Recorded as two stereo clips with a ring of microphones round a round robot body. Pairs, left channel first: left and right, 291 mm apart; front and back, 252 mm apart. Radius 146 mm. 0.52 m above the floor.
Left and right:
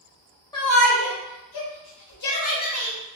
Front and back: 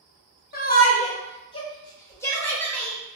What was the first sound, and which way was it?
A shout, 20° left.